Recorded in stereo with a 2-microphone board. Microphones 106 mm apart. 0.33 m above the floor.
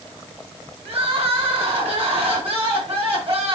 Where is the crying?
70° right (ahead or behind), 2 m.